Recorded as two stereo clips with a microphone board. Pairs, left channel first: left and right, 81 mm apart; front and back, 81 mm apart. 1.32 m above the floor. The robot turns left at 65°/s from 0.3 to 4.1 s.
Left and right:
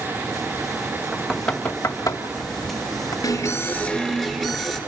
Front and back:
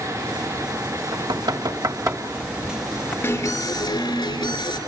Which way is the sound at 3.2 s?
65° left.